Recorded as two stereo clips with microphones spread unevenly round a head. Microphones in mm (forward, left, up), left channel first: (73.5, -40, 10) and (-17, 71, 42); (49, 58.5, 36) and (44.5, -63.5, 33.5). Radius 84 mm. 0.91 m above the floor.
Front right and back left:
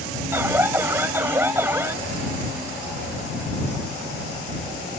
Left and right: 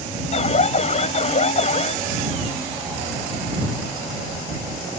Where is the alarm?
55° left.